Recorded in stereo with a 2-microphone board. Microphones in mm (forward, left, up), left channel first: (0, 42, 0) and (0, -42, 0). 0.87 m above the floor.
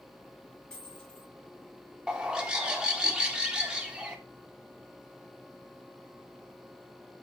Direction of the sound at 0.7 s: 10° left (ahead or behind).